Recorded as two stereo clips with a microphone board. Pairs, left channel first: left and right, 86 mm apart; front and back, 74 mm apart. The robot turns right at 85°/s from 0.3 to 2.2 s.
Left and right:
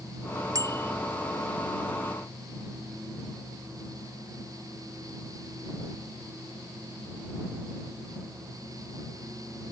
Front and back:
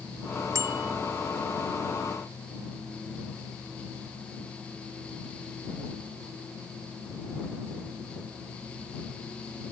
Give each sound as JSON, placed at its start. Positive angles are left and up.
{"t": 0.6, "sound": "a bicycle bell", "azimuth_deg": -135}